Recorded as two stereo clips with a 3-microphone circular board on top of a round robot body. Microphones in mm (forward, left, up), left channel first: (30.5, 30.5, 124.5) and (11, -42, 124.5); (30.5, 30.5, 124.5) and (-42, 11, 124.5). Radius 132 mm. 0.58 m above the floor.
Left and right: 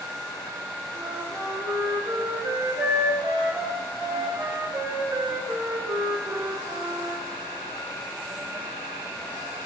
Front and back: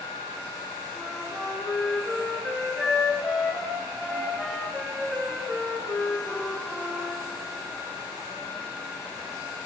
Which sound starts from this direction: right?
A flute, at 0.9 s.